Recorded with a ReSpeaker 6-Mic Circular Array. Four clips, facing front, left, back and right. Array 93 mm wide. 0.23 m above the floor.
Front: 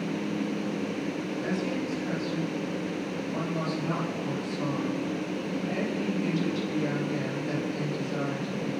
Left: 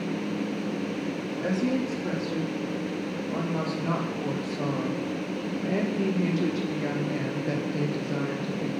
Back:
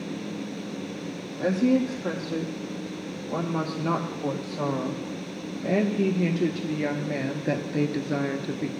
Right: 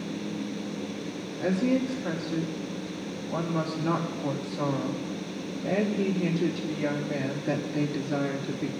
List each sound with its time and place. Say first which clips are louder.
1.4 s a woman speaking: right 2 dB, back 11 dB; 170° left, 7.5 m; by 8.7 s 175° right, 3 m